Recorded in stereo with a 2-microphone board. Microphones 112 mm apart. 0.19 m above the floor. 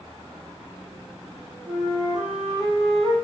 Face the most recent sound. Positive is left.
turn(degrees=-10)  # may be behind; listen again after turning